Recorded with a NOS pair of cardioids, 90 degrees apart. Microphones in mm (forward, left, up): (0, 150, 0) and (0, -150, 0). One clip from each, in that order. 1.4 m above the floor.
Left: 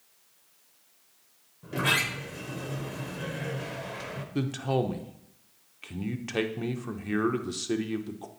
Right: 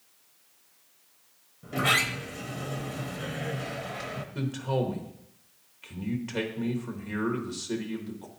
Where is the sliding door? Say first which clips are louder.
Right 1 dB; straight ahead, 0.8 m.